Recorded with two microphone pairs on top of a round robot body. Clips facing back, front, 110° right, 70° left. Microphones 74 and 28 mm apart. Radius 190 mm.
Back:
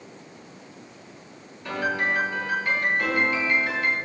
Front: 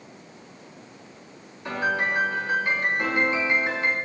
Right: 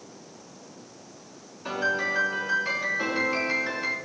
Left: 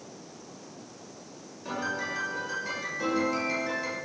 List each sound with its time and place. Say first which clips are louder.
1.6 s a piano: even, right 6 dB; 60° right, 5.5 m